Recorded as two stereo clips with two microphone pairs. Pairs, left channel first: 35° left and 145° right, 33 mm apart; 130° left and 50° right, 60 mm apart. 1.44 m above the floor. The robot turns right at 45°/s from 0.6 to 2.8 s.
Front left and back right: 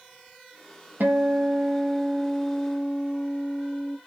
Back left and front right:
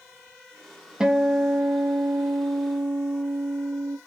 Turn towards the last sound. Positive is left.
turn(degrees=-50)